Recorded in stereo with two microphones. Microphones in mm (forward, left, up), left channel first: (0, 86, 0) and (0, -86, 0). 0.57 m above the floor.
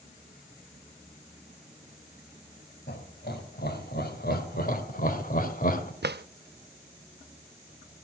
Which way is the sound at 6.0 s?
75° right (ahead or behind).